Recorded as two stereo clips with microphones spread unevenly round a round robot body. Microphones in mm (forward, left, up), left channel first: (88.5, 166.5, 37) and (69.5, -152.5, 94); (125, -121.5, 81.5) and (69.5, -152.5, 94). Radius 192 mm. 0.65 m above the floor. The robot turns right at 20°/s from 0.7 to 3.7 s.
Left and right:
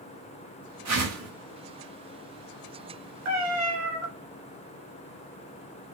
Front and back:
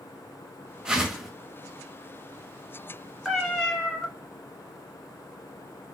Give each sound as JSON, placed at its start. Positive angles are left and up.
{"t": 0.8, "sound": "a whoosh", "azimuth_deg": -65, "distance_m": 1.6}
{"t": 3.2, "sound": "a cat meowing", "azimuth_deg": -65, "distance_m": 1.4}